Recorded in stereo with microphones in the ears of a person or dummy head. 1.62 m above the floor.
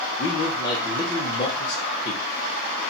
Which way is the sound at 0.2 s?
20° left (ahead or behind).